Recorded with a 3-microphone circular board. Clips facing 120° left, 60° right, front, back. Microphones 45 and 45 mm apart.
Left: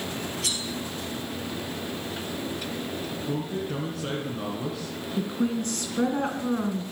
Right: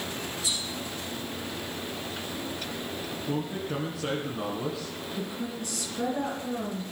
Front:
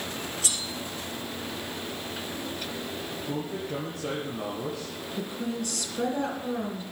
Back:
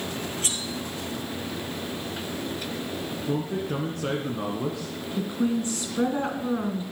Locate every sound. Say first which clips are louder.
0.4 s cutlery clinking: left 1 dB, back 2 dB; 130° left, 2.5 m
3.3 s a man speaking: even, back 5 dB; 140° right, 2 m
5.2 s a woman speaking: left 9 dB, back 7 dB; 130° left, 2.5 m